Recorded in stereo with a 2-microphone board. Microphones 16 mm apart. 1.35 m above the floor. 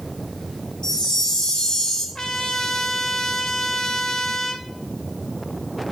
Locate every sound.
0.8 s a chime: 75° left (ahead or behind), 1.8 m
2.1 s a trumpet: 50° left (ahead or behind), 0.9 m